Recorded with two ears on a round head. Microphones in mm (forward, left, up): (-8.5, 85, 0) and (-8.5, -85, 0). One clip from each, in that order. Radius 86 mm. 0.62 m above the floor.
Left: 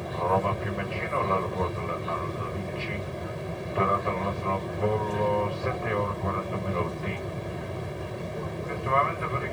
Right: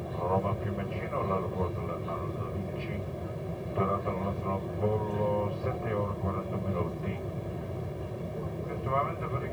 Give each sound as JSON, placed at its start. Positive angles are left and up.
{"t": 0.0, "sound": "an aircraft", "side_deg": 55}